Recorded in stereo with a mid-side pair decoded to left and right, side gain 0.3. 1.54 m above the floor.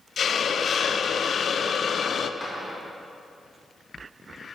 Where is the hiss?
65° left, 0.5 m.